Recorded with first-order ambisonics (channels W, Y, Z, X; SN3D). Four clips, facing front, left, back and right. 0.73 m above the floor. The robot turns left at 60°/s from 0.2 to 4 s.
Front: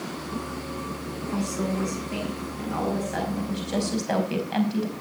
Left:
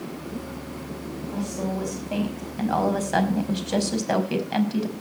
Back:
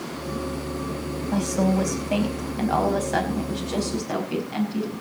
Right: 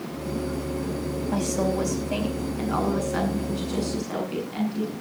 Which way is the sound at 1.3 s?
130° right.